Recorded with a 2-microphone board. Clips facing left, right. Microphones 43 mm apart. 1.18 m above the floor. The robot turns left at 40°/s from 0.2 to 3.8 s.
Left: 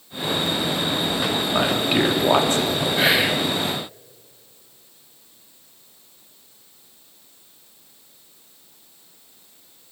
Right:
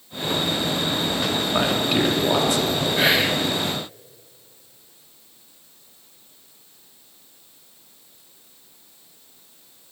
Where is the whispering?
Centre (ahead or behind), 0.9 m; by 3.5 s 15° left (ahead or behind), 0.9 m.